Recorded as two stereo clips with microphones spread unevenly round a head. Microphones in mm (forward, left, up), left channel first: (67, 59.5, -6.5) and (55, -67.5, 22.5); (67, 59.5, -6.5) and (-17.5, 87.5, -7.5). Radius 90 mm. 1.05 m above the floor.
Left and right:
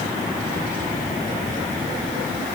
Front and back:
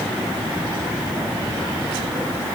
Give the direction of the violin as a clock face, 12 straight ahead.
I don't hear a violin.